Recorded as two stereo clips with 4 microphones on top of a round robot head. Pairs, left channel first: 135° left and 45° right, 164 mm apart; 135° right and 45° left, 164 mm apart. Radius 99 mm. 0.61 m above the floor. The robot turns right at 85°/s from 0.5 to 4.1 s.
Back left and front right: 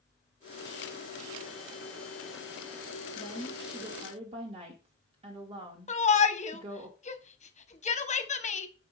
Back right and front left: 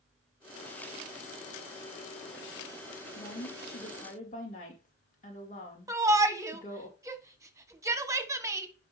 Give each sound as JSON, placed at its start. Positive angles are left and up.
{"t": 3.1, "sound": "a woman speaking", "azimuth_deg": -175, "distance_m": 2.5}
{"t": 5.9, "sound": "a shout", "azimuth_deg": 110, "distance_m": 1.3}